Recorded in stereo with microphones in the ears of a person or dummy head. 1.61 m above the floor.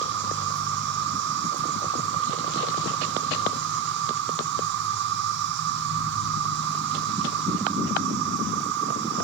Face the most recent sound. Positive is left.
turn(degrees=-55)  # may be behind; listen again after turning